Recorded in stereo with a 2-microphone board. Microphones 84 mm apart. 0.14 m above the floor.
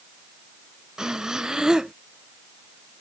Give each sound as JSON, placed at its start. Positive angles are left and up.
{"t": 1.0, "sound": "breathing", "side_deg": -10}